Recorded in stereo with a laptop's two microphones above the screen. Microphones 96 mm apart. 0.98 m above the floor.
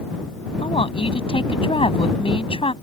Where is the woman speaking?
80° left.